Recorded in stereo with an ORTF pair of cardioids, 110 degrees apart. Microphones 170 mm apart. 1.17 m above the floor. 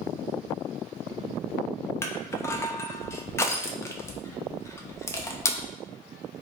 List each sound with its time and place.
2.0 s crushing: 15° left, 0.6 m